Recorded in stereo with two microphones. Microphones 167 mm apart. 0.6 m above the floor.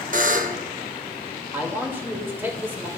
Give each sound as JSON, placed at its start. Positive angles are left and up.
{"t": 0.1, "sound": "a buzzer", "side_deg": -50, "distance_m": 1.0}
{"t": 1.5, "sound": "a man speaking", "side_deg": -15, "distance_m": 2.5}